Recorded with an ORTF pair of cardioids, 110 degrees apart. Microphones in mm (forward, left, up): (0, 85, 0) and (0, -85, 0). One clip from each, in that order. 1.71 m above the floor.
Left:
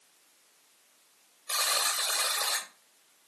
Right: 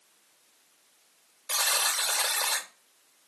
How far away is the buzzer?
About 0.7 m.